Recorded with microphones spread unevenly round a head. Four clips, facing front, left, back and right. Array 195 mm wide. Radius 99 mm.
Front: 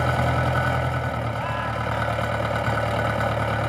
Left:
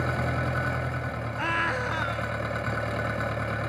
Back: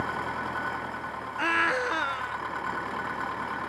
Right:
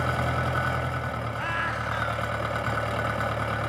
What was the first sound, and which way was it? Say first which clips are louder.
An engine running: right 2 dB, front 8 dB; 5° left.